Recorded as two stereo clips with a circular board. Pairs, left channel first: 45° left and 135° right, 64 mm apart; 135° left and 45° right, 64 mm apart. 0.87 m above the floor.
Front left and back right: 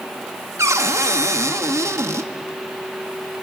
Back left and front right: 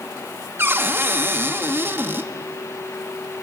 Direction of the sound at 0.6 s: 95° right.